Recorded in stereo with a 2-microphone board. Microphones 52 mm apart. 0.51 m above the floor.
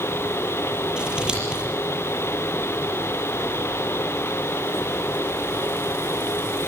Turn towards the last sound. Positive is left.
turn(degrees=-15)  # may be behind; listen again after turning